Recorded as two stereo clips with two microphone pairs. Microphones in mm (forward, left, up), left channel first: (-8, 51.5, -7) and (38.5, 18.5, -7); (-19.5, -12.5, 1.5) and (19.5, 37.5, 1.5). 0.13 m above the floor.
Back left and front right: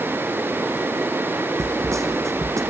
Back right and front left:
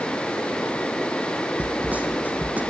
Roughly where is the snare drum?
Ahead.